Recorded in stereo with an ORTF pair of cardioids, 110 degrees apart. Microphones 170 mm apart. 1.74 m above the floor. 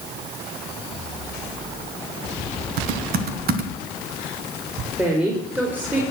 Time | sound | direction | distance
2.8 | typing on a keyboard | 65° right | 1.5 m
5.0 | a woman speaking | 10° right | 4 m